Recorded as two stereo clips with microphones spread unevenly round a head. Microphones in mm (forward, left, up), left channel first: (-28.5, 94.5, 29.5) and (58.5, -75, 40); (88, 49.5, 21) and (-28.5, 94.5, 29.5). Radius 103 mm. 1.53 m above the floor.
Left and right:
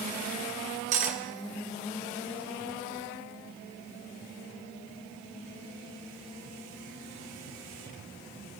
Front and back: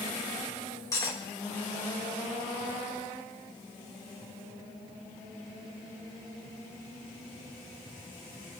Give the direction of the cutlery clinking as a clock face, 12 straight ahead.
3 o'clock.